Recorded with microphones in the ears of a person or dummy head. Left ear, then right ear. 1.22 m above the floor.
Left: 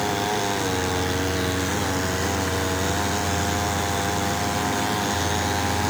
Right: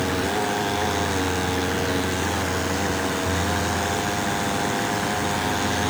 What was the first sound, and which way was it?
Only background noise.